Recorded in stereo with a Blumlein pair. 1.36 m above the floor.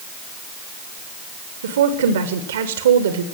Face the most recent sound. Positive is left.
turn(degrees=-60)